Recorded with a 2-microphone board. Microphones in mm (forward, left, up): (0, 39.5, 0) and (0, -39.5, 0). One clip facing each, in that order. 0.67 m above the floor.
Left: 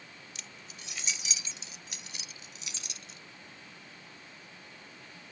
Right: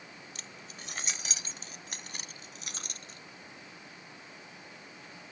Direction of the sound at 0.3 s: 45° right (ahead or behind).